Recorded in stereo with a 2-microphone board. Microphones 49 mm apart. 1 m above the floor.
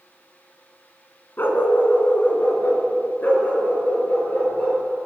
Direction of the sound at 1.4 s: 50° left (ahead or behind).